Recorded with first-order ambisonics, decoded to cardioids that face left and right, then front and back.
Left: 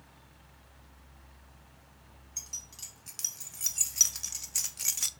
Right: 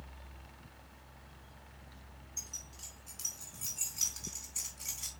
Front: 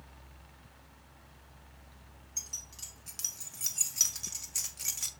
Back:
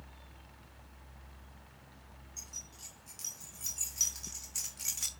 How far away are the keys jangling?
About 2.5 m.